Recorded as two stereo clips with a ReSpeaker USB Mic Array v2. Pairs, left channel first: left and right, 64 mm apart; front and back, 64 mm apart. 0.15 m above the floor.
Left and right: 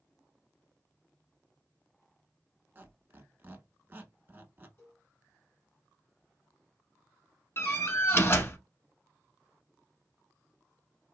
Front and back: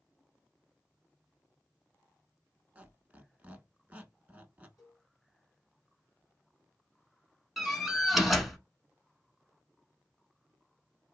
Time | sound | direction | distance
2.8 | a squeak | 130° right | 0.6 m
4.8 | a cowbell | 100° left | 1.7 m
7.6 | a door slam | 95° left | 1.0 m